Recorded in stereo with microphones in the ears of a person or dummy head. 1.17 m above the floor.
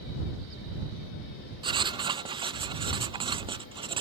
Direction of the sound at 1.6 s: 25° right (ahead or behind).